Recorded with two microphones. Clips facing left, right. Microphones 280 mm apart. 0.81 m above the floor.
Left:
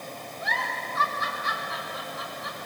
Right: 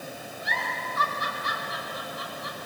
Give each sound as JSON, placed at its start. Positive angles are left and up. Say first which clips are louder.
{"t": 0.4, "sound": "a giggle", "louder": "left 1 dB", "side_deg": -40, "distance_m": 4.5}